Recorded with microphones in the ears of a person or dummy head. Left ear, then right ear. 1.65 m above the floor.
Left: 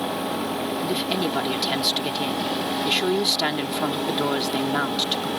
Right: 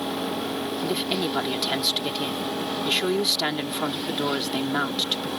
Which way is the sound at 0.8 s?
Centre (ahead or behind).